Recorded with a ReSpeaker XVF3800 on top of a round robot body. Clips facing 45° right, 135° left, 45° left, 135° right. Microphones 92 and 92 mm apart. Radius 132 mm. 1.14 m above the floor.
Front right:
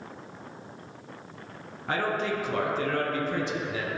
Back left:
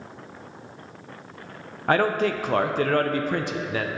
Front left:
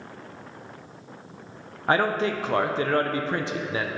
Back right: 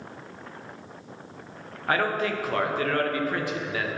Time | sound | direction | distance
1.9 | a man speaking | 110° left | 0.6 m